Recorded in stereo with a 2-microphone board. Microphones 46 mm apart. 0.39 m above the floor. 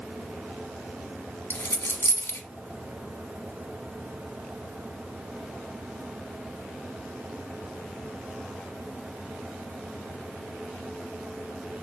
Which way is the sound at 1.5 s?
75° left (ahead or behind).